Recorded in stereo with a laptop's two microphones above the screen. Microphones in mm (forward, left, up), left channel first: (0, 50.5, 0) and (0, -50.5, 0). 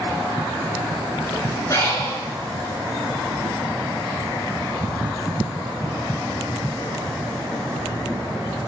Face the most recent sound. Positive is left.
turn(degrees=35)  # may be behind; listen again after turning